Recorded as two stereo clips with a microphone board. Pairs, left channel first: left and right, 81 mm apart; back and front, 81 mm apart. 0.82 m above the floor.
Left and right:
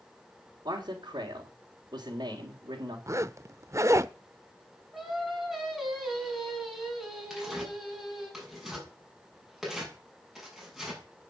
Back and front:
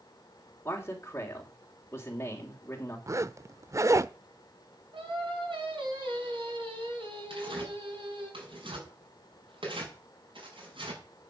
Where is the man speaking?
115° right, 3 m.